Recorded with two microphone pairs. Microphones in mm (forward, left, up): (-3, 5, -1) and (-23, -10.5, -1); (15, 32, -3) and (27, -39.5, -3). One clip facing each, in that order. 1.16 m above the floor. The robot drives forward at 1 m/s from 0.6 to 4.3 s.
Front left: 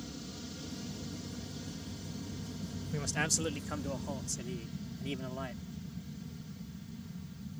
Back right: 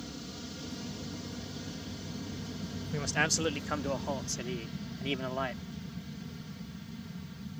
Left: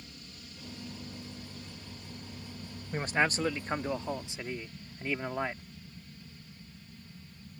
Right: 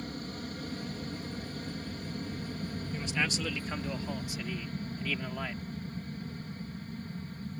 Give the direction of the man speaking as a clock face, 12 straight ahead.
7 o'clock.